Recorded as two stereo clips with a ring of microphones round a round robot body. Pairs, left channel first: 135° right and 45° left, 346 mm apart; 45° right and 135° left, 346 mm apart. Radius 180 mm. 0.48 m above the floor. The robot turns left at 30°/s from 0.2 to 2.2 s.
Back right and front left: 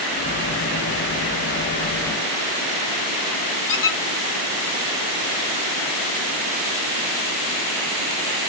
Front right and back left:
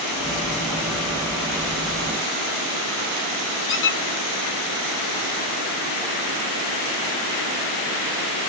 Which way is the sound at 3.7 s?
100° right.